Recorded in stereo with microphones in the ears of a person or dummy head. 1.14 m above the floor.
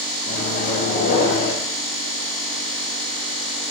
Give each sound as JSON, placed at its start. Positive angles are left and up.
{"t": 0.3, "sound": "a microwave", "side_deg": 50, "distance_m": 1.5}